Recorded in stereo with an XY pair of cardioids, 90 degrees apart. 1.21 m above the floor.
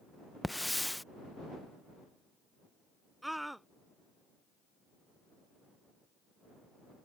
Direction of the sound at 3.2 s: 5° right.